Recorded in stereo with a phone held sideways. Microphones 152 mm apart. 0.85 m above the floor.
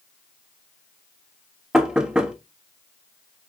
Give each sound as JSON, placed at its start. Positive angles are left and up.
{"t": 1.7, "sound": "knocking", "side_deg": -5, "distance_m": 1.3}